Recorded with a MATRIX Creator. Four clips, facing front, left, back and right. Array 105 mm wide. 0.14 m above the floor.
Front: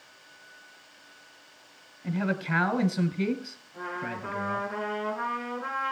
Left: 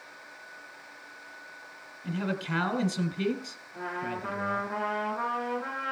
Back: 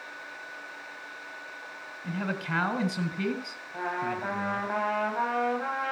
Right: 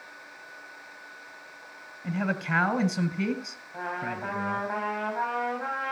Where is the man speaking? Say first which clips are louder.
Right 2 dB, front 3 dB; 95° right, 1.3 m.